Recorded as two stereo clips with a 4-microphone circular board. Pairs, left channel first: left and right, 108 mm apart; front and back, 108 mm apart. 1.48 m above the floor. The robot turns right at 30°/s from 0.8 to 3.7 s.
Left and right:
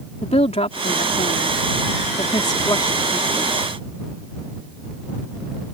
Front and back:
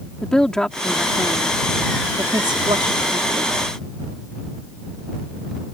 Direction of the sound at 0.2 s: 85° left.